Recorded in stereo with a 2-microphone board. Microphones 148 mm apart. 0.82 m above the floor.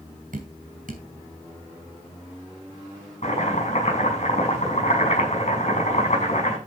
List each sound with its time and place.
0.3 s dripping: 70° right (ahead or behind), 3.5 m
3.2 s chopping: 55° left (ahead or behind), 6 m